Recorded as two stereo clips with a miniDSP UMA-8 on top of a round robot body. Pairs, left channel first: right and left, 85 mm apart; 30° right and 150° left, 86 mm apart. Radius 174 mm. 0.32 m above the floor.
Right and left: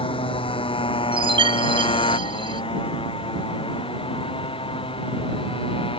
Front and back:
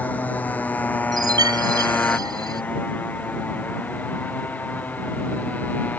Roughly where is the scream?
No scream in this recording.